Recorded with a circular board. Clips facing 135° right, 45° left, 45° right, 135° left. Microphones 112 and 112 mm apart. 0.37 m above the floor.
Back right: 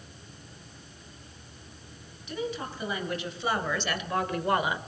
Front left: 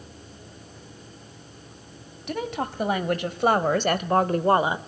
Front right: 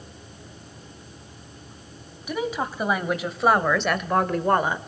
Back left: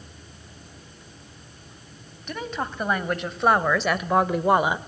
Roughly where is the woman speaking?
Ahead left.